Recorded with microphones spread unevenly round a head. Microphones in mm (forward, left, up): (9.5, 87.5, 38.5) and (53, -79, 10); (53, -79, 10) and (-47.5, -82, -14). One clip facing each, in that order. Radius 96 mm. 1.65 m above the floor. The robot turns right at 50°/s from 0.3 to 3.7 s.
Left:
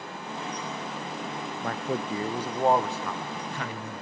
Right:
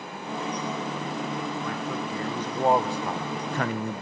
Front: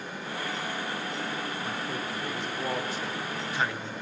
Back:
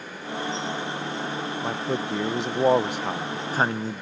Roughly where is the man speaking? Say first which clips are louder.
Left 1 dB, back 6 dB; behind left.